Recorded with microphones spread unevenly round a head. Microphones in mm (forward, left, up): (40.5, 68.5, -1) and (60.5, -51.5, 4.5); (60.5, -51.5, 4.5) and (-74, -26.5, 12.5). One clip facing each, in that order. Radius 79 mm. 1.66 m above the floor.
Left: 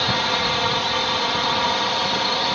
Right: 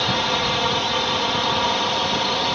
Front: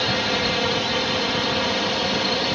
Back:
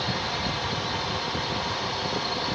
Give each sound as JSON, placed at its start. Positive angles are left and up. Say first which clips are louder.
{"t": 0.0, "sound": "a drone", "louder": "even, front 6 dB", "azimuth_deg": 5}